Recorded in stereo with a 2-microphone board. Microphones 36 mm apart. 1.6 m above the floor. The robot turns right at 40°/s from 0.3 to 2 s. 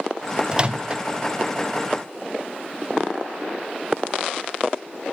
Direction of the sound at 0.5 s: 25° right (ahead or behind).